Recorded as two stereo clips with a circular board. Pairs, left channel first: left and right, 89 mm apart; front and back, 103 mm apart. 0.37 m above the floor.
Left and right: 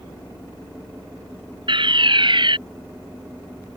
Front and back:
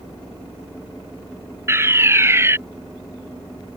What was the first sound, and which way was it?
A fire alarm, 115° right.